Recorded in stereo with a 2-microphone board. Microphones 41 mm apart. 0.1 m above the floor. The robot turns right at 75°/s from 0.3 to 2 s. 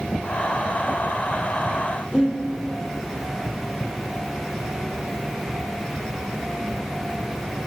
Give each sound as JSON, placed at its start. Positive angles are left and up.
{"t": 2.1, "sound": "breathing", "side_deg": 25, "distance_m": 2.5}